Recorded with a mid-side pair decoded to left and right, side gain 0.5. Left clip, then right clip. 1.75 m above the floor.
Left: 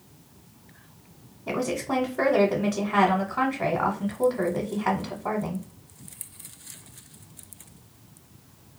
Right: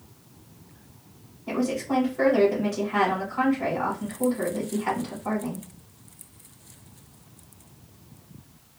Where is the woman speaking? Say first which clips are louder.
Even; 65° left, 1.1 m.